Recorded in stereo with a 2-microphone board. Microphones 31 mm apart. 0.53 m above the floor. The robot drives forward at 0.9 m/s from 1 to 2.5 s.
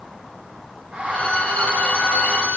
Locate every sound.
1.1 s a violin: 50° left (ahead or behind), 4.5 m; by 2.6 s 65° left (ahead or behind), 3.5 m